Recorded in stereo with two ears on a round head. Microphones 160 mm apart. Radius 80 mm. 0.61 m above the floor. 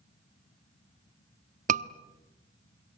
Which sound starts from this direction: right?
A scream, at 1.7 s.